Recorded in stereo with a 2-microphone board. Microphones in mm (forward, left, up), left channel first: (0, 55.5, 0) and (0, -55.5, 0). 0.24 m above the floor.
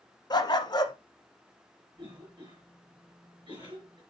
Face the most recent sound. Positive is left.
turn(degrees=-45)  # may be behind; listen again after turning